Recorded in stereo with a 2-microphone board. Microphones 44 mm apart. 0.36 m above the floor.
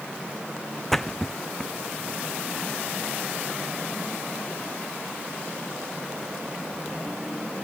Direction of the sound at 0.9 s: 10° left (ahead or behind).